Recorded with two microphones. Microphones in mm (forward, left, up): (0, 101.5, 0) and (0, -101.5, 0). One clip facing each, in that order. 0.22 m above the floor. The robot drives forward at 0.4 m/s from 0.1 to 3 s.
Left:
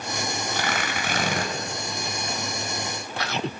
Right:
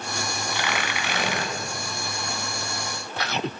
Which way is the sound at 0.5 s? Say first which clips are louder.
Right 1 dB; 45° left (ahead or behind).